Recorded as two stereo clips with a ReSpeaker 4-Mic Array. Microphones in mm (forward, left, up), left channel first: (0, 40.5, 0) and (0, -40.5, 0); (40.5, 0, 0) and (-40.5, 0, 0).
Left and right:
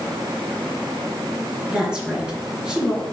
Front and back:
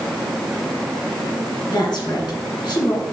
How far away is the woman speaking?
About 2.5 m.